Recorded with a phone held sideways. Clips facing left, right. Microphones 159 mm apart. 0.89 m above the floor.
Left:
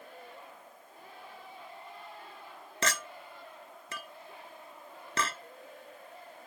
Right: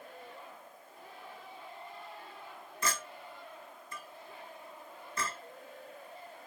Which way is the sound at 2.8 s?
85° left.